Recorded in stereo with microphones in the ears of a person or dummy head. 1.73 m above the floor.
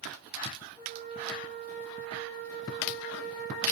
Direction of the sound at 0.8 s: 20° left (ahead or behind).